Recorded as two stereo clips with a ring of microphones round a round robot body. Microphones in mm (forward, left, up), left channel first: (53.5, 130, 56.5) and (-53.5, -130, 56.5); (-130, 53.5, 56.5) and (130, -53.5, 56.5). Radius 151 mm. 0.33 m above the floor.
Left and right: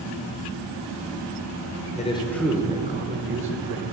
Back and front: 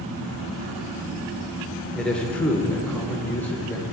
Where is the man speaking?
75° left, 1.0 m; by 3.9 s 120° right, 1.5 m.